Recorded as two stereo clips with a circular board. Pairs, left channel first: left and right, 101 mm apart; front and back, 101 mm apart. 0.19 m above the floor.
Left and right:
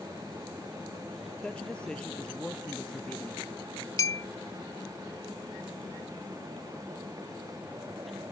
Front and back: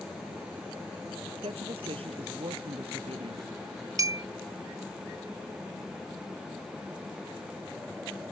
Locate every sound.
1.4 s a woman speaking: 170° left
4.0 s a clink: 135° left